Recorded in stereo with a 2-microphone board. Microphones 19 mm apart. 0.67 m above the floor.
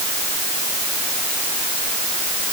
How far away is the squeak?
No squeak in this recording.